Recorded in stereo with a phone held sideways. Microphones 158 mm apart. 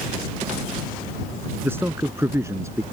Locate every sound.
1.6 s a man speaking: 15° right (ahead or behind); by 2.8 s 20° right (ahead or behind)